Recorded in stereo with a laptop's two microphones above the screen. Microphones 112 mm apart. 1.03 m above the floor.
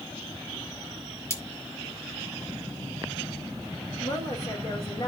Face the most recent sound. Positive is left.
turn(degrees=65)  # may be behind; listen again after turning